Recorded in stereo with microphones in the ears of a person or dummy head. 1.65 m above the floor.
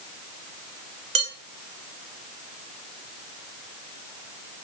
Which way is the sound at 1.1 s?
35° right (ahead or behind).